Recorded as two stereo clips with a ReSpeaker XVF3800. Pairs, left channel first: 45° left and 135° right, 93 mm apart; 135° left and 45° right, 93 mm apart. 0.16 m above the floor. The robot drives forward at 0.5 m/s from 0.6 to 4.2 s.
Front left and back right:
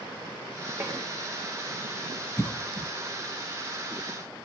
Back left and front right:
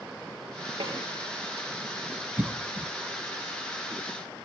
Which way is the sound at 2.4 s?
15° left.